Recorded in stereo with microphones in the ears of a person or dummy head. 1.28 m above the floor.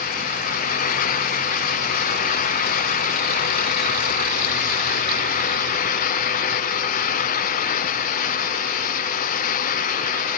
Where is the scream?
No scream in this recording.